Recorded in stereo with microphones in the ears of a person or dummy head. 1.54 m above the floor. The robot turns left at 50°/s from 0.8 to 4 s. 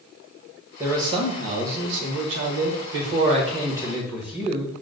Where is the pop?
No pop in this recording.